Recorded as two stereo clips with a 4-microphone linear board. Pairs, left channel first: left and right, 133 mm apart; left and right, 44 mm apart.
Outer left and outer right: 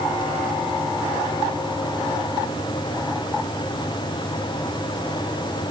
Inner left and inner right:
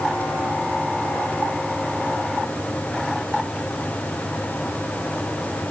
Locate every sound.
Only background noise.